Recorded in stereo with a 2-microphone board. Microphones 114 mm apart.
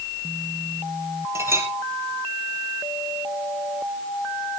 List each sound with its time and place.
1.4 s a clink: 25° right (ahead or behind), 3 m